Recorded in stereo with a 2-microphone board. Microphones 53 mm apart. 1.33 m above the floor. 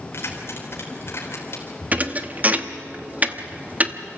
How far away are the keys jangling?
About 3.5 m.